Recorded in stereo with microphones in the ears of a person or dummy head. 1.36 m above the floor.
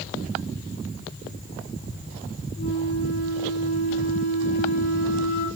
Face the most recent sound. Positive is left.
turn(degrees=50)  # may be behind; listen again after turning